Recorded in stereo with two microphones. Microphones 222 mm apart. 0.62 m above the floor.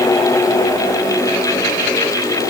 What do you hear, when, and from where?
Only background noise.